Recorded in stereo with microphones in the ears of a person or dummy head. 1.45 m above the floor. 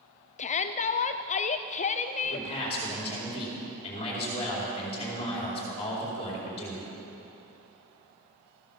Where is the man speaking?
30° left (ahead or behind), 4.5 m.